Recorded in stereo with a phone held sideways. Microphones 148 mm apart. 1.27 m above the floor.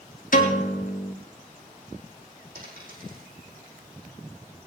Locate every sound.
0.3 s a piano: 65° left (ahead or behind), 1.9 m
2.5 s a dropped coin: 70° right (ahead or behind), 5 m